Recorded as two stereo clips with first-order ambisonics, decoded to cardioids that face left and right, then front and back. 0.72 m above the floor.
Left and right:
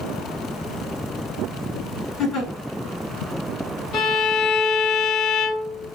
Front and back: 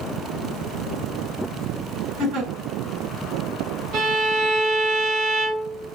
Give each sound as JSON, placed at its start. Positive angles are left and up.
{"t": 2.2, "sound": "a giggle", "azimuth_deg": 145, "distance_m": 3.5}
{"t": 3.9, "sound": "a violin", "azimuth_deg": 140, "distance_m": 3.0}